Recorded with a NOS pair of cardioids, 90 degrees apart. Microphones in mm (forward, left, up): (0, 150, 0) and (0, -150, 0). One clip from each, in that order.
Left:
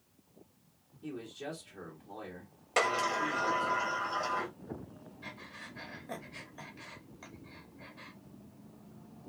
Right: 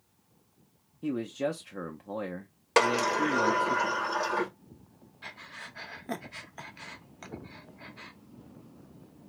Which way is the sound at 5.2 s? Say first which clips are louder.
Right 4 dB; 45° right.